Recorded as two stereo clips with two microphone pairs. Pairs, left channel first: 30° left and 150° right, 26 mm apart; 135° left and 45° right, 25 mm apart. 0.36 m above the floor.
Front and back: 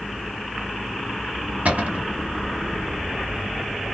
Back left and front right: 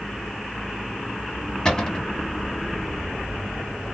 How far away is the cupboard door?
About 0.9 m.